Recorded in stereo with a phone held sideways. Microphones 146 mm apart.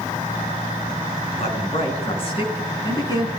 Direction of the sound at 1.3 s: 50° left (ahead or behind).